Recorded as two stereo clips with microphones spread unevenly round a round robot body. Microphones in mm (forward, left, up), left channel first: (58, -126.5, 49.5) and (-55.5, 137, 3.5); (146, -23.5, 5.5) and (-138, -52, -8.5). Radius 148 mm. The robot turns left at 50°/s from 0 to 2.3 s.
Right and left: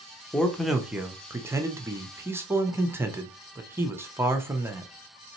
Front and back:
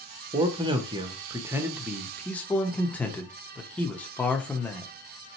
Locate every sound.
0.3 s a man speaking: 175° right, 0.5 m; by 4.9 s 90° left, 0.5 m